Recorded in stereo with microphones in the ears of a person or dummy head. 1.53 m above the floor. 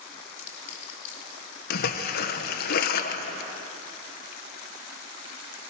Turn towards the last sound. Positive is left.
turn(degrees=55)  # may be behind; listen again after turning